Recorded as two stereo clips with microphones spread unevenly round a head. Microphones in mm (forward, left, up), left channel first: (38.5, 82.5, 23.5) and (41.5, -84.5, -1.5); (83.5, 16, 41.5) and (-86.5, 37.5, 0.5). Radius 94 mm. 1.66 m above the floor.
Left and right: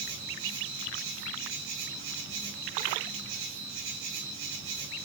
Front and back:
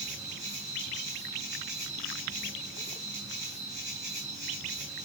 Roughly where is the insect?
Right.